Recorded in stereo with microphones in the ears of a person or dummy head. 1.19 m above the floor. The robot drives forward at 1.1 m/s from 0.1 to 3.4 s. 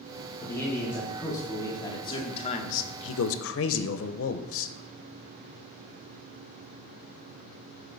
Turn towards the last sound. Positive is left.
turn(degrees=65)  # may be behind; listen again after turning